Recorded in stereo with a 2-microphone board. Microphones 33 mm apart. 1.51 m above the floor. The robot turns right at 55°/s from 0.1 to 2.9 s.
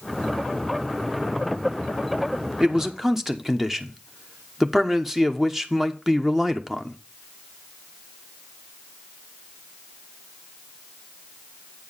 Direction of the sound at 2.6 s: 25° right (ahead or behind).